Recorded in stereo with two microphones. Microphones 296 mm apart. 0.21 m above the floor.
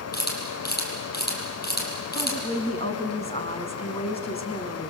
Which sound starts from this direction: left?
A camera shutter, at 0.1 s.